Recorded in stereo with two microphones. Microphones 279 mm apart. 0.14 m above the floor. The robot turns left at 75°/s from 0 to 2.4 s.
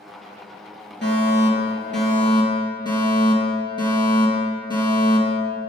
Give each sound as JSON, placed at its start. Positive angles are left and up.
{"t": 1.0, "sound": "a fire alarm", "azimuth_deg": 125, "distance_m": 4.0}